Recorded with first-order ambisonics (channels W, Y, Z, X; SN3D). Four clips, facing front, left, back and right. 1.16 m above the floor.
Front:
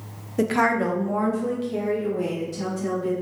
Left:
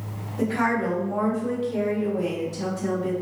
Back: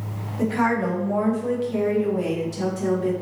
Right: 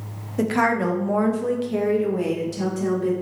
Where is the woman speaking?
30° right, 0.7 m; by 3.1 s 120° right, 1.6 m.